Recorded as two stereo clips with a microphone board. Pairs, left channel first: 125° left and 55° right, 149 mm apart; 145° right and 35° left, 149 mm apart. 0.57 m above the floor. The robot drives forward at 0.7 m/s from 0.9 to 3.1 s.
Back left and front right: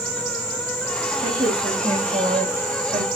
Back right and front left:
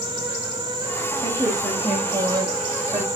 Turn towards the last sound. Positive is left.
turn(degrees=-50)